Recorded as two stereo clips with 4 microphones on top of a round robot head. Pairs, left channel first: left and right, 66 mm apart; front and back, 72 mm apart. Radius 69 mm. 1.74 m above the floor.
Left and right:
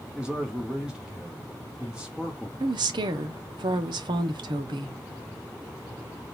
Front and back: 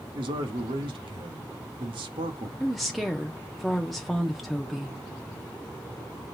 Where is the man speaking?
170° right, 0.9 m.